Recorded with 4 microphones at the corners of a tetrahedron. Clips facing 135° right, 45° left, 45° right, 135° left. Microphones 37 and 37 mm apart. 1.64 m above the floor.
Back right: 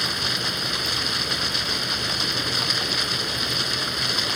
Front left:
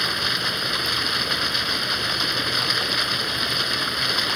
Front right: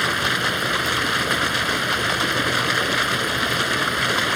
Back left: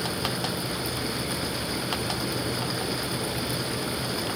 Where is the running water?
35° right.